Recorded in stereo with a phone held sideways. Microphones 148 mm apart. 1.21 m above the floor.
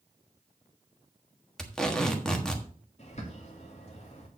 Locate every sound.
1.6 s tape being pulled: 5° left (ahead or behind), 1.3 m
3.0 s a bird: 45° left (ahead or behind), 2.5 m